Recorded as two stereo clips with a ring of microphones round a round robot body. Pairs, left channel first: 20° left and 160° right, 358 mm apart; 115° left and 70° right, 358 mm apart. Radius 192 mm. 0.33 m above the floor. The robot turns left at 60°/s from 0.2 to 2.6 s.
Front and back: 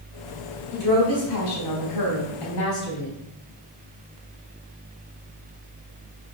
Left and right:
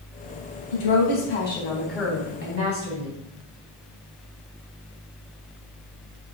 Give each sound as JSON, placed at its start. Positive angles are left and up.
{"t": 0.7, "sound": "a woman speaking", "azimuth_deg": 95, "distance_m": 3.0}